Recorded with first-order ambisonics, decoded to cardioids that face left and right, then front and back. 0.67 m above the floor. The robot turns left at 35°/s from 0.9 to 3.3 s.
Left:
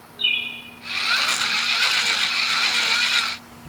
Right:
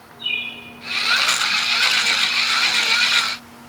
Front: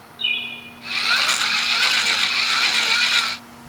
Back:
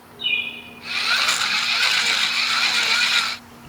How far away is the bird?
About 1.0 m.